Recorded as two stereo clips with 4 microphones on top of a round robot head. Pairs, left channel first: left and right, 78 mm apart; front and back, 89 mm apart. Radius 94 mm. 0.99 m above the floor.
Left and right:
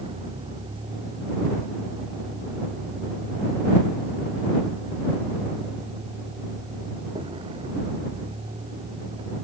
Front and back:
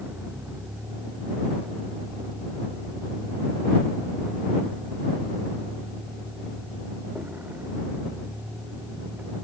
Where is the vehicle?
100° right.